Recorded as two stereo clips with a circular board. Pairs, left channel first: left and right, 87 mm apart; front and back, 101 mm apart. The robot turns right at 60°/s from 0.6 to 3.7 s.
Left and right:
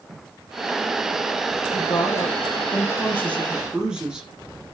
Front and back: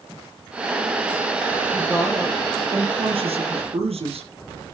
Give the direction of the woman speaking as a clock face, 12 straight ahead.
10 o'clock.